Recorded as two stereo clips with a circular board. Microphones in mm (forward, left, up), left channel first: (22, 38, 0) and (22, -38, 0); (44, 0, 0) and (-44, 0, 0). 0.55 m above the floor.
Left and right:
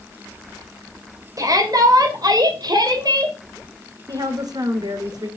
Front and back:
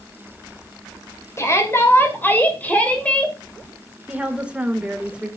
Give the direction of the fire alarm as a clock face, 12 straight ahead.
I don't hear a fire alarm.